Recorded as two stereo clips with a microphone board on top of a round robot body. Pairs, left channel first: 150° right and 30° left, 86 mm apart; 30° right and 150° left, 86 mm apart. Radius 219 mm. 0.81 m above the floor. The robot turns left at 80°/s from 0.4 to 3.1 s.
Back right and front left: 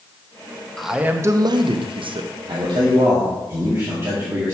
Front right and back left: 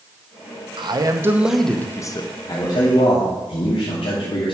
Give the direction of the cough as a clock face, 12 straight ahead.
No cough in this recording.